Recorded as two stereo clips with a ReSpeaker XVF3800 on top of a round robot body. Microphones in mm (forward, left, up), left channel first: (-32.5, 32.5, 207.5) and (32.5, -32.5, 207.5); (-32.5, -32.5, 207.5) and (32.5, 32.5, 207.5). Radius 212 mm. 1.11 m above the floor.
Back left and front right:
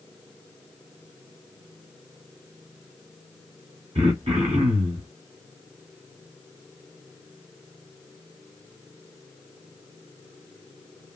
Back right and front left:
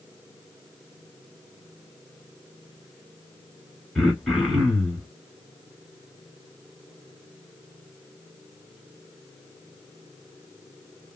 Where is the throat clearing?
50° right, 0.6 m.